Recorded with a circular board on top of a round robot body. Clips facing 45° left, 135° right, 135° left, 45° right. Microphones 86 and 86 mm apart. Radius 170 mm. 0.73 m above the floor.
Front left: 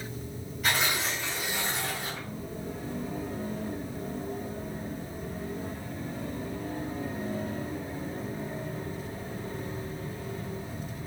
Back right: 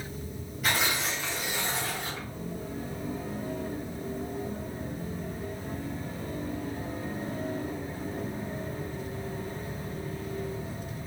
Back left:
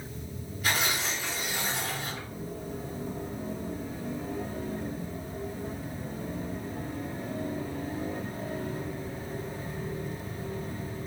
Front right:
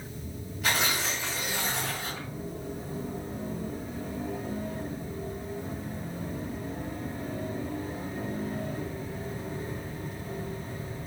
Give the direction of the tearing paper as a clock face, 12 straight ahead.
2 o'clock.